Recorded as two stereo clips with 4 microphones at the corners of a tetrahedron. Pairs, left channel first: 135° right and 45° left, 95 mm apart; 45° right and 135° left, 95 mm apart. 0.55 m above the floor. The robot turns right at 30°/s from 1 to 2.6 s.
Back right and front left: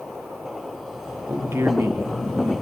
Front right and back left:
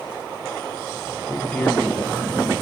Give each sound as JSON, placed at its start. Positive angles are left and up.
{"t": 1.3, "sound": "a man speaking", "azimuth_deg": 5, "distance_m": 0.8}